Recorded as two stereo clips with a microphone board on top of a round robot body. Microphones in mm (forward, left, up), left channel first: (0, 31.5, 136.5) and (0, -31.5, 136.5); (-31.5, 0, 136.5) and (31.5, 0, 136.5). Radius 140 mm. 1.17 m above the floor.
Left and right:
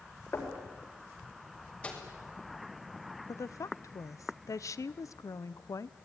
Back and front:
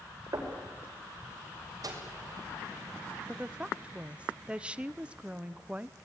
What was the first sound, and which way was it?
Knocking, 35° left.